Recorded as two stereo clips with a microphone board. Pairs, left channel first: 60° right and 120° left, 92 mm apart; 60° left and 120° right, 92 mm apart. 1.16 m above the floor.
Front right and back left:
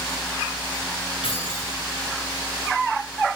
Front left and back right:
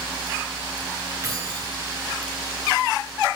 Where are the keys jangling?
70° right, 9.5 m.